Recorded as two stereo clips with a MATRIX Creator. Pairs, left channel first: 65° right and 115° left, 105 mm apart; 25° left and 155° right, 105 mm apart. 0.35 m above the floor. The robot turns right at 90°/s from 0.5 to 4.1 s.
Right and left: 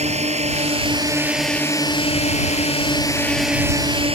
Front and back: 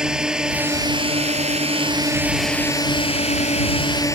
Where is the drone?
120° left; by 4.2 s 85° left.